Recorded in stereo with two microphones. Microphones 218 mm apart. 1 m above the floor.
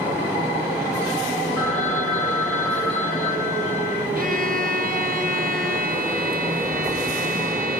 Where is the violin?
40° right (ahead or behind), 0.9 m.